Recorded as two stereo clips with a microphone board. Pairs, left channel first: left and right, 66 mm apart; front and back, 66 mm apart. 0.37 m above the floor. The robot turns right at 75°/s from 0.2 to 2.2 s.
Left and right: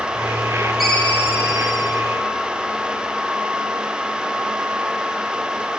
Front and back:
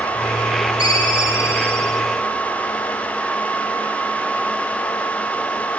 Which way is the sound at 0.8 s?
5° right.